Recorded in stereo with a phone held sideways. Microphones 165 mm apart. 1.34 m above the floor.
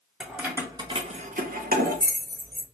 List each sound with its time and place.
0.2 s keys jangling: centre (ahead or behind), 0.7 m; by 2.7 s 60° right (ahead or behind), 1.1 m